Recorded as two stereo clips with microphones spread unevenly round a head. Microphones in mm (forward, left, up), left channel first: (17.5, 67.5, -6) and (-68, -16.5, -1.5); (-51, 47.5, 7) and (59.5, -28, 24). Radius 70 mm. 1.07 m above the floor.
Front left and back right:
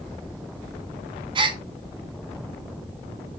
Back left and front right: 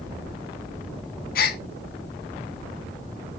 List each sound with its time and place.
1.4 s a gasp: 175° left, 1.1 m